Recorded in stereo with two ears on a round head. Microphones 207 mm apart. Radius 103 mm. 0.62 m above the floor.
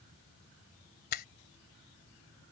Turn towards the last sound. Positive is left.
turn(degrees=40)  # may be behind; listen again after turning